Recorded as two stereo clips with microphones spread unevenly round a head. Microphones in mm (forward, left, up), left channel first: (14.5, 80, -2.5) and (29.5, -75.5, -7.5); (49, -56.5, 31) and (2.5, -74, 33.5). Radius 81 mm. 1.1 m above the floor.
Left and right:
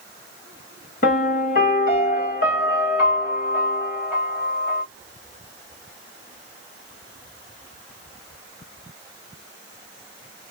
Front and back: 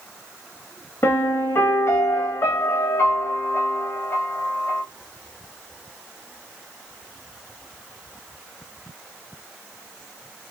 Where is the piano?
65° left, 1.8 m.